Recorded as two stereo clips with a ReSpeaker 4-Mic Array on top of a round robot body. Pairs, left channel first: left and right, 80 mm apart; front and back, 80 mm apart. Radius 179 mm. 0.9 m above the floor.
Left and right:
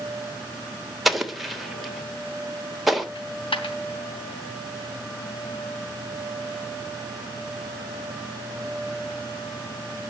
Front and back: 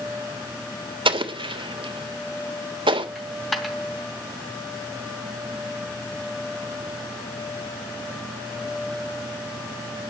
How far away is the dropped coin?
About 3 m.